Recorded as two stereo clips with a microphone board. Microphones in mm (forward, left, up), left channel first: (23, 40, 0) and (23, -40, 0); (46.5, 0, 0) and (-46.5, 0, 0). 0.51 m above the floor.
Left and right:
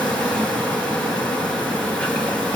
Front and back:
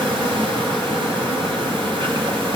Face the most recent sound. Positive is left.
turn(degrees=165)